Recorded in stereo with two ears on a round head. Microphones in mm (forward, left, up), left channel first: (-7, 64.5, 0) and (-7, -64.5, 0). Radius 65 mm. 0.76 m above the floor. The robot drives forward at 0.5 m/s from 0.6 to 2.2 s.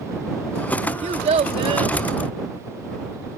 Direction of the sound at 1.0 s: 50° right (ahead or behind).